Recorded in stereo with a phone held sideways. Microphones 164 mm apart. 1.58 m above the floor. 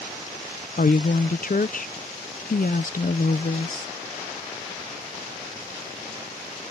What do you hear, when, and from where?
0.8 s a woman speaking: 60° left (ahead or behind)